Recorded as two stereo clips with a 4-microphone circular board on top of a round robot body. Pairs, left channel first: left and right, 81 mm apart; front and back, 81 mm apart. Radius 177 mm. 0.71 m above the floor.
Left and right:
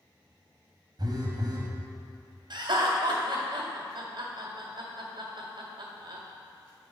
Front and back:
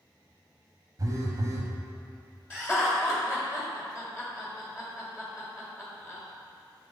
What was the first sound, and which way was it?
A phone buzzing, 130° right.